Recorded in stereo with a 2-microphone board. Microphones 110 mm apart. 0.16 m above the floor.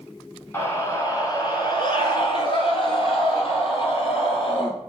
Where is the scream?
20° left (ahead or behind), 1.2 m; by 4.7 s 60° left (ahead or behind), 3.5 m.